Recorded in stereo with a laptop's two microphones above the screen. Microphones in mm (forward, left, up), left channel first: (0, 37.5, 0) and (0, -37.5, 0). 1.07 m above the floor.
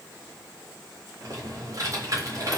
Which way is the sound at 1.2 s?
50° right (ahead or behind).